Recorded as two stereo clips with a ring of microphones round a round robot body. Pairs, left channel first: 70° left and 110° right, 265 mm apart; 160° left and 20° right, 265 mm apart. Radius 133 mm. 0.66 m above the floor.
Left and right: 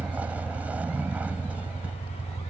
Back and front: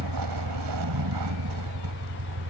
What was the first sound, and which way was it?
A vehicle, 30° right.